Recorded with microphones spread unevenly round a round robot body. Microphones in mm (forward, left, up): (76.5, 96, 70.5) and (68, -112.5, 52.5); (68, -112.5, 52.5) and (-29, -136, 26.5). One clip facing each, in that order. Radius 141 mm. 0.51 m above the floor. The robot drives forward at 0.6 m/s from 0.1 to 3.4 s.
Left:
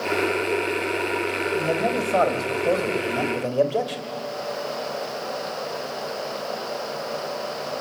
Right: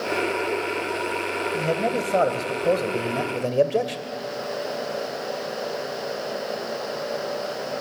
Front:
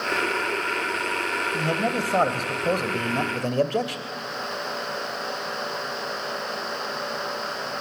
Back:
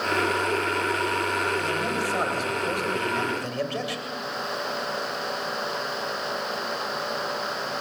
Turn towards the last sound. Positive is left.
turn(degrees=-30)